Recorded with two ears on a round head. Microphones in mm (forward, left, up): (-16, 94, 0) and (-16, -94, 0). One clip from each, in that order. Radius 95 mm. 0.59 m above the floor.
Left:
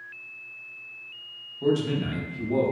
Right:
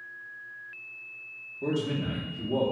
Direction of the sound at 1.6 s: 25° left (ahead or behind).